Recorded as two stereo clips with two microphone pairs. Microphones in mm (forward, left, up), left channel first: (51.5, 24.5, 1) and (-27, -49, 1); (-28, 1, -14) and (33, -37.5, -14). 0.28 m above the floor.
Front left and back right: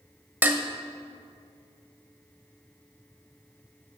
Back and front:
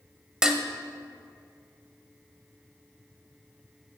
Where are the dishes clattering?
95° right, 0.7 m.